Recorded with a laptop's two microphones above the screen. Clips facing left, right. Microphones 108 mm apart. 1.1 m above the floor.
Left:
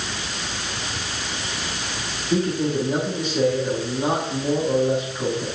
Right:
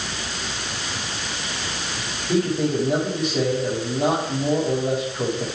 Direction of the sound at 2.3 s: 70° right (ahead or behind).